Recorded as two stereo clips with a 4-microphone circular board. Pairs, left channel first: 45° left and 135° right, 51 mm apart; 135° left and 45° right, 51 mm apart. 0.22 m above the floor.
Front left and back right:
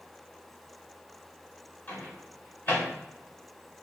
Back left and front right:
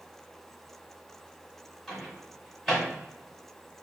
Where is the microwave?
45° left, 1.2 m.